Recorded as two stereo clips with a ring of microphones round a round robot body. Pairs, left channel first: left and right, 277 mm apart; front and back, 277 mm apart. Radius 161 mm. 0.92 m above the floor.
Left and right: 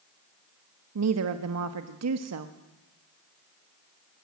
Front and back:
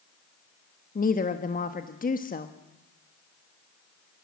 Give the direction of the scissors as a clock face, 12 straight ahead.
I don't hear scissors.